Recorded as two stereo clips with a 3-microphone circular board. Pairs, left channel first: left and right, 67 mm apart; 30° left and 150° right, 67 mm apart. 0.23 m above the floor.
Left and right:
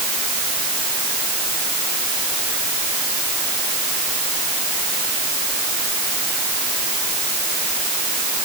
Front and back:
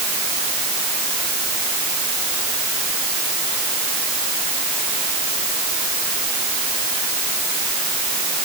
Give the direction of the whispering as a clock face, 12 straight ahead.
No whispering in this recording.